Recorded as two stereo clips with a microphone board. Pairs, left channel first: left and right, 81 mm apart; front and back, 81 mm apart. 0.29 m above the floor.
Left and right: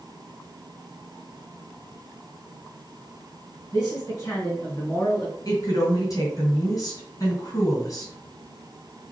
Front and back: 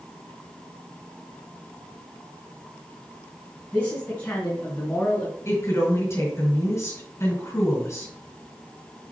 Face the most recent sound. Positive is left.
turn(degrees=50)